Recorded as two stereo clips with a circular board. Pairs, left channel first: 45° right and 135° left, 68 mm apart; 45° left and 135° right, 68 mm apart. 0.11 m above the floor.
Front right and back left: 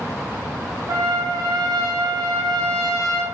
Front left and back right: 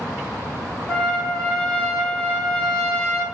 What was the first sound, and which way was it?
A trumpet, 120° left.